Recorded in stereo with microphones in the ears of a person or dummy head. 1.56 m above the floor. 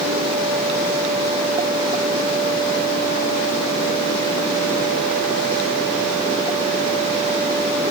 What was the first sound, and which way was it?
Only background noise.